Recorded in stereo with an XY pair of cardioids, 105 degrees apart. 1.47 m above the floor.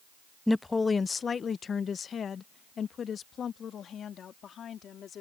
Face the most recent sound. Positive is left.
turn(degrees=60)